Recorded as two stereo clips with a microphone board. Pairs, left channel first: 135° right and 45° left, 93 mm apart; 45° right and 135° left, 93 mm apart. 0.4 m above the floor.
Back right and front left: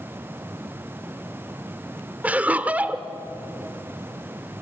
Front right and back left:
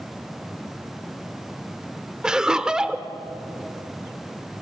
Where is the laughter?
70° left, 0.8 m.